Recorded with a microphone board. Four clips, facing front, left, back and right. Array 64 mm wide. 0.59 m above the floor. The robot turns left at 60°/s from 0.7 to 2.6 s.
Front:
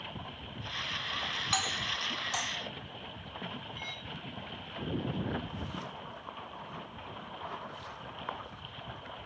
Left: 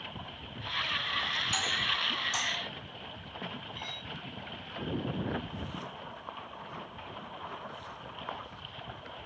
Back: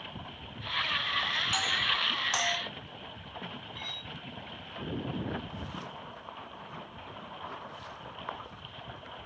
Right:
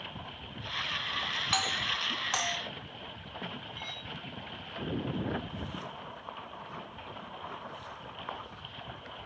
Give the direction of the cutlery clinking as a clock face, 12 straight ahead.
6 o'clock.